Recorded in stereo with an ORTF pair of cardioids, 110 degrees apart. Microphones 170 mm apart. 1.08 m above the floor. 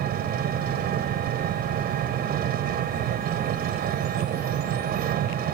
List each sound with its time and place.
0.0 s an engine running: 65° right